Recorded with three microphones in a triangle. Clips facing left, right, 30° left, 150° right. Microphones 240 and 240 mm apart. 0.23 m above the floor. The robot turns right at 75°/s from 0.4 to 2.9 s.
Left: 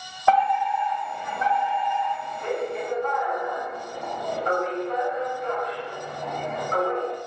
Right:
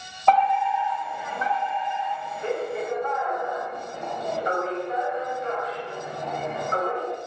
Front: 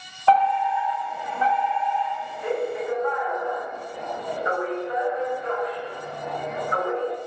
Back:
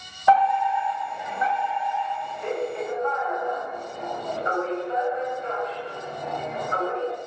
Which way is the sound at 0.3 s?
160° left.